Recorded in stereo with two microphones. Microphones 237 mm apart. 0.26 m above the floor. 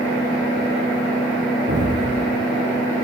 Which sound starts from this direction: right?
An explosion, at 1.7 s.